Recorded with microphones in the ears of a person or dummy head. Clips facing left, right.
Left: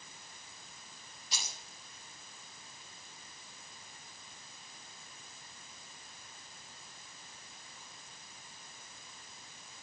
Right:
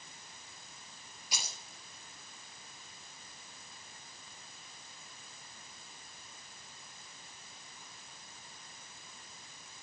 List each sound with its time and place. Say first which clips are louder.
1.3 s keys jangling: right 1 dB; 15° right (ahead or behind), 3.5 m